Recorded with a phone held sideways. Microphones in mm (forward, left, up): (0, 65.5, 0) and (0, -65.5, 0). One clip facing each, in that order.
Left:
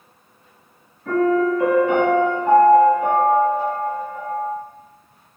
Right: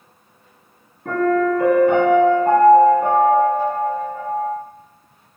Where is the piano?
55° right (ahead or behind), 1.9 m.